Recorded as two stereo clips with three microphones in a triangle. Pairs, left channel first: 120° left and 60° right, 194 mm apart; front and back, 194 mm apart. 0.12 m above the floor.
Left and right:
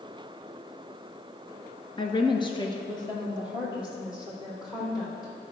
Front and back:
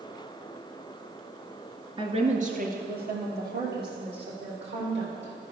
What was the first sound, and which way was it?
A woman speaking, 155° left.